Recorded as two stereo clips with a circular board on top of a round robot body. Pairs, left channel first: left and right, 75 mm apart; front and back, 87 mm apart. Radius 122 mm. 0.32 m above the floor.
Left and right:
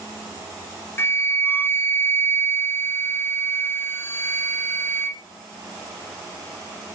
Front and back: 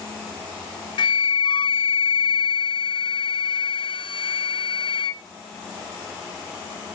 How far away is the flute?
About 0.7 m.